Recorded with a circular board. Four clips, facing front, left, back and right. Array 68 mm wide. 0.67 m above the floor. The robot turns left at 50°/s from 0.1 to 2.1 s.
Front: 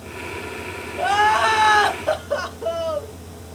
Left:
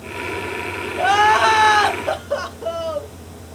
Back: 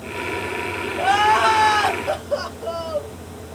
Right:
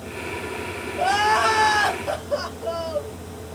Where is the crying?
105° left, 1.0 m; by 3.1 s 45° left, 1.0 m.